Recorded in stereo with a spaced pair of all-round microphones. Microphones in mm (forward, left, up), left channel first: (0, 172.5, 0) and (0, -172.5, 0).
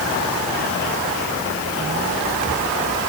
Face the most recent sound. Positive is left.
No sound to turn to.